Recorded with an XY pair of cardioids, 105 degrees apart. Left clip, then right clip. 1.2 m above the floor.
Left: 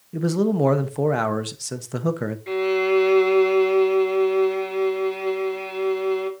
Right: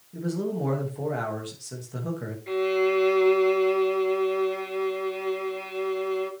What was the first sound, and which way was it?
A man speaking, 65° left.